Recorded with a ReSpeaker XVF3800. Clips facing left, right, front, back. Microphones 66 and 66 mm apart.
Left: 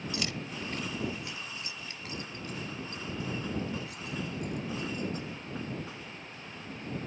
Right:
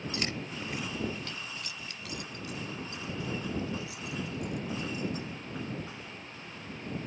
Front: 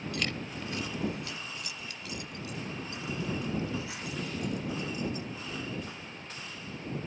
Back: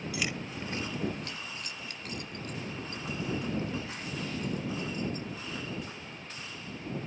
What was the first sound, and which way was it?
Keys jangling, 100° right.